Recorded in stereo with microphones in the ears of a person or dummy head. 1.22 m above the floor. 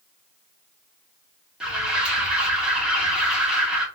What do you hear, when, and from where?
1.6 s an alarm: 5° right (ahead or behind), 1.6 m